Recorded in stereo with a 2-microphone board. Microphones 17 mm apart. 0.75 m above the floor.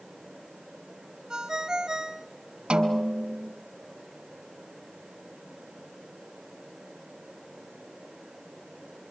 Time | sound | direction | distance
1.3 | a ringtone | 45° right (ahead or behind) | 1.8 m
2.7 | a snare drum | 80° right | 2 m